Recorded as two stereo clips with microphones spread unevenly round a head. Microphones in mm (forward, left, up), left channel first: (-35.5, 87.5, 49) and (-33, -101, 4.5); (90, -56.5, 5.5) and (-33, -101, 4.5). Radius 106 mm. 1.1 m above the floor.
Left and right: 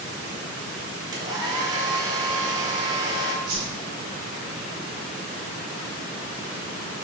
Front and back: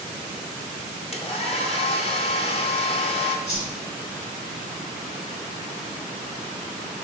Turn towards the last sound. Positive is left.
turn(degrees=-20)